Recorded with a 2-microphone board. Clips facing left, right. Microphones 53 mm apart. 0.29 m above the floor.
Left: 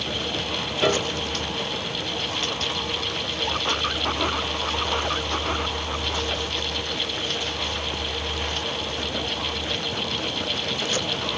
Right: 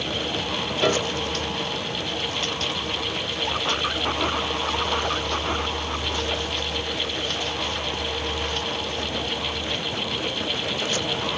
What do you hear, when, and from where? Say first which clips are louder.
0.8 s a piano: even; centre (ahead or behind), 0.7 m